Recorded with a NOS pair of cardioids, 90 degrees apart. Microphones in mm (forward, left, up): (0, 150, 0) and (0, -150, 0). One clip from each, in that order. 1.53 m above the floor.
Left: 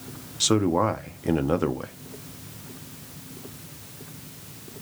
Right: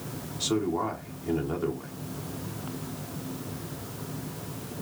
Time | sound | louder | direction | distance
0.4 | a man speaking | left 6 dB | 55° left | 1.0 m